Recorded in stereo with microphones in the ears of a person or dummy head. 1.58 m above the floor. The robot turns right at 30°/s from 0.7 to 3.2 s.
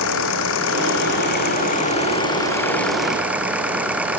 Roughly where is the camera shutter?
I don't hear a camera shutter.